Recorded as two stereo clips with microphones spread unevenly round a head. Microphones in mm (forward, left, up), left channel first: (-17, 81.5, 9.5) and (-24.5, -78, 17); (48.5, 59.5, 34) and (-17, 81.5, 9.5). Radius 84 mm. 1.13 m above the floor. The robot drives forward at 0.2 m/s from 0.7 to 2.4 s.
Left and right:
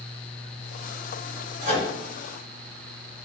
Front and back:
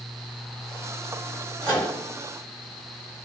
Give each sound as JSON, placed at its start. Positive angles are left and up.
{"t": 1.6, "sound": "a microwave", "azimuth_deg": -135, "distance_m": 1.6}